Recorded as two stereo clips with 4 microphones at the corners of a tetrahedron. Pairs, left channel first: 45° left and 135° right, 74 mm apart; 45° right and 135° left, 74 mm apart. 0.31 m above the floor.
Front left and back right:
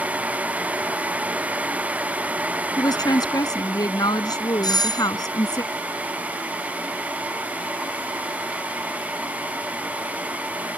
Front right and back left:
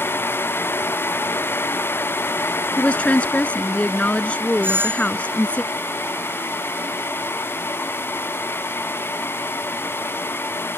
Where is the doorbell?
75° left.